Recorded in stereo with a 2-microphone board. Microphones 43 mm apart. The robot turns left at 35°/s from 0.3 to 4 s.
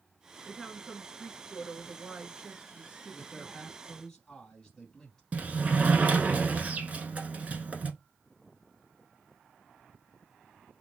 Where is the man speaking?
165° right, 2.5 m; by 5.2 s 165° left, 2.5 m.